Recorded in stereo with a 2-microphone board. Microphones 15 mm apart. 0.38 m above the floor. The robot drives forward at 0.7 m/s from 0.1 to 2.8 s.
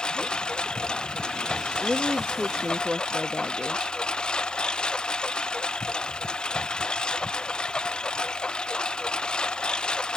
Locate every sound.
0.0 s a lawn mower: 85° left; by 10.2 s 80° left
1.8 s a woman speaking: 45° right (ahead or behind)